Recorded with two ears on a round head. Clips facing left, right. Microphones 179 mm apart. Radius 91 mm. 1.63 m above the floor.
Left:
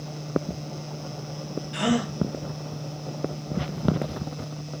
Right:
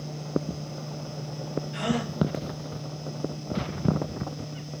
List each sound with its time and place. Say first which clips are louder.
1.7 s a gasp: left 5 dB; 60° left (ahead or behind), 0.8 m